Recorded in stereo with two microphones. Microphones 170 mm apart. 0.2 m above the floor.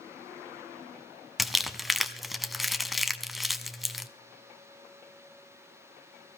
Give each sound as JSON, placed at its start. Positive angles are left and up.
{"t": 1.4, "sound": "crumpling", "side_deg": 0, "distance_m": 0.9}